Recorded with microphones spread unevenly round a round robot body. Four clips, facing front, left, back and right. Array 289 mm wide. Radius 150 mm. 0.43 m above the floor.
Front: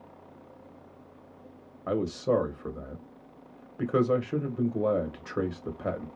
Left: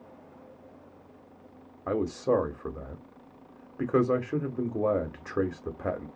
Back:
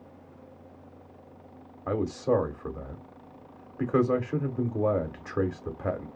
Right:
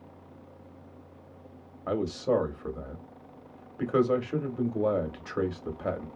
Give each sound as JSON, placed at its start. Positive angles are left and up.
{"t": 1.9, "sound": "a man speaking", "azimuth_deg": -150, "distance_m": 1.0}